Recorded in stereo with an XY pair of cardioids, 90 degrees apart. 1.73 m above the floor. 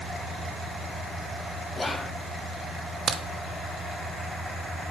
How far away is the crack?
About 0.8 m.